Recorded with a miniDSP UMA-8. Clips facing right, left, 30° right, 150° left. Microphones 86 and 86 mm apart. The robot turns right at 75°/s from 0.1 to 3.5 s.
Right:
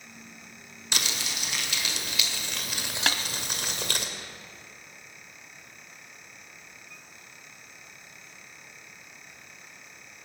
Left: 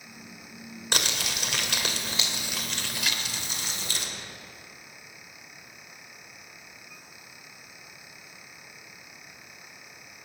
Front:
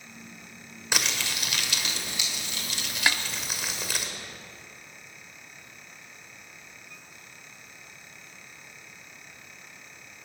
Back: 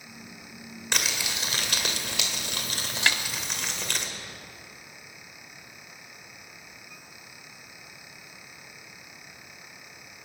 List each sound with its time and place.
0.9 s crumpling: 55° left, 2 m; by 4.1 s 115° right, 2 m
3.1 s a snare drum: 105° right, 0.6 m; by 3.2 s 95° right, 0.6 m